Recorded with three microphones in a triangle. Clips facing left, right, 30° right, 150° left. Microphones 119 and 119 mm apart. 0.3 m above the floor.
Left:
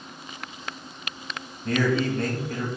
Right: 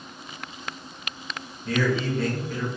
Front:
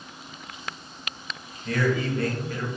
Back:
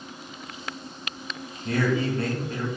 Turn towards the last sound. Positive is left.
turn(degrees=100)